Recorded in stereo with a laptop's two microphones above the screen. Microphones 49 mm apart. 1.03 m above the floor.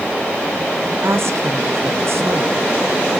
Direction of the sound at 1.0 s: 65° right (ahead or behind).